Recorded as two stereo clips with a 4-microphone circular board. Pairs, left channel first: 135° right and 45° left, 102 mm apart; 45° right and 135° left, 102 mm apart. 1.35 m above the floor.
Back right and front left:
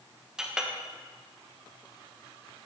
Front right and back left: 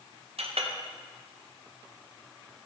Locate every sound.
0.4 s a clink: 125° left, 0.8 m